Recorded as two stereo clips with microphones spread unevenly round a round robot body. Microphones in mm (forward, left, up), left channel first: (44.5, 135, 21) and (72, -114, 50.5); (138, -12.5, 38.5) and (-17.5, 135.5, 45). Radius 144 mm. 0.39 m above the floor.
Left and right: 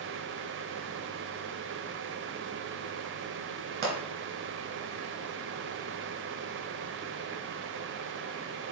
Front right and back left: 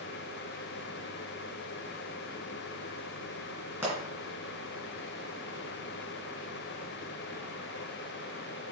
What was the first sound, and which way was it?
A pop, 145° right.